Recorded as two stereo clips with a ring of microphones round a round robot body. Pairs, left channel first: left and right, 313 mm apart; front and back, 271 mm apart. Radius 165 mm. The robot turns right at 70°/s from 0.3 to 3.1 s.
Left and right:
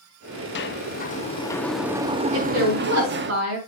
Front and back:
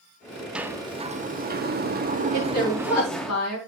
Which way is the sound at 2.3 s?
90° right.